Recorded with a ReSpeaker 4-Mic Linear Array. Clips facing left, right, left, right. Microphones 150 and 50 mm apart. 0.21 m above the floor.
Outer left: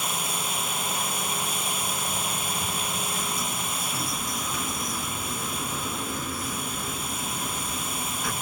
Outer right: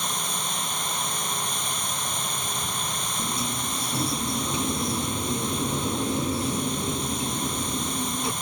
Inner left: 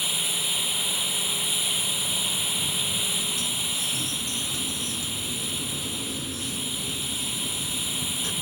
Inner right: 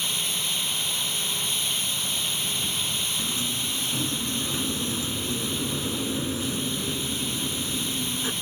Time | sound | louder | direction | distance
0.0 | running water | even, even | 5° left (ahead or behind) | ?
3.2 | a sliding door | outer right 2 dB, inner right 1 dB | 25° right (ahead or behind) | ?